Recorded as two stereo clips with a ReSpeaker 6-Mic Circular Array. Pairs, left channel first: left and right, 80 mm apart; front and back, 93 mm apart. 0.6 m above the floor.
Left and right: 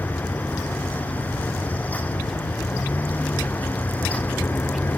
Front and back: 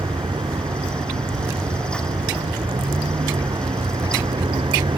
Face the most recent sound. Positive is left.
turn(degrees=155)